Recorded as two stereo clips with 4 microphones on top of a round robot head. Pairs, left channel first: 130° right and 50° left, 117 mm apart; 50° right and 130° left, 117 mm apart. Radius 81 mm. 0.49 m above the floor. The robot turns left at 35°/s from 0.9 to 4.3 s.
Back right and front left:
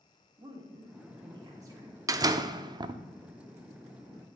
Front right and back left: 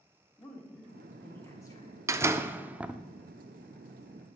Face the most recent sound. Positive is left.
turn(degrees=5)